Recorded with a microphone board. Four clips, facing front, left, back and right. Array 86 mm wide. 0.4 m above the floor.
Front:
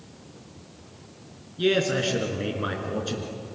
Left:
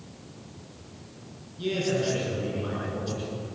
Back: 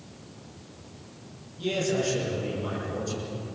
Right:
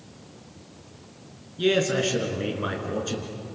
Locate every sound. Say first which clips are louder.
1.6 s a man speaking: right 5 dB, front 4 dB; 40° right, 5.5 m